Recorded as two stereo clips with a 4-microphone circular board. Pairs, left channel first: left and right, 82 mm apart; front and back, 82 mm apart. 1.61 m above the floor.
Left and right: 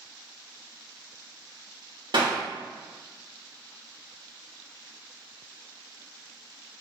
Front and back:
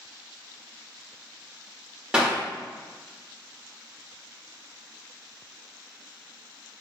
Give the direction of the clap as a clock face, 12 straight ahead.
3 o'clock.